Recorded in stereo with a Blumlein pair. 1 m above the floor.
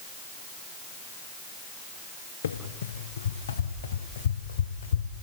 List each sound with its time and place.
2.4 s running footsteps: 70° left, 5 m; by 5.1 s 75° left, 3.5 m